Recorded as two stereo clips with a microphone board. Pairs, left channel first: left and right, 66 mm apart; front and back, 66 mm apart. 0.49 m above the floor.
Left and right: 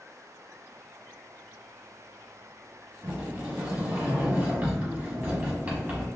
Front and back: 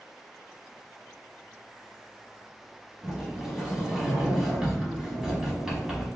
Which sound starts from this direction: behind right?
A sliding door, at 3.0 s.